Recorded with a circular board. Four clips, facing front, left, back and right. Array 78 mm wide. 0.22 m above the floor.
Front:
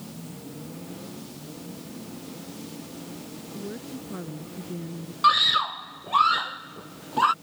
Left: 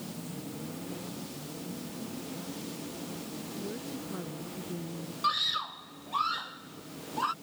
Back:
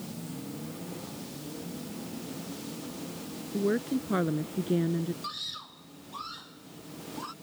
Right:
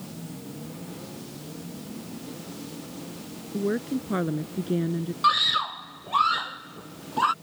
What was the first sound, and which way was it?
A woman speaking, 135° right.